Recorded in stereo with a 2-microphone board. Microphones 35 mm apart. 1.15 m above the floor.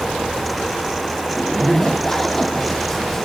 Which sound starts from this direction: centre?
A zipper, at 1.3 s.